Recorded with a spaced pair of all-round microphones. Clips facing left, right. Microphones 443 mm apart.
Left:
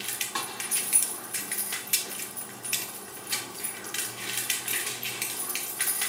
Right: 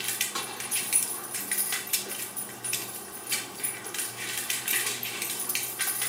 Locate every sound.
0.3 s a snare drum: 10° left (ahead or behind), 2.5 m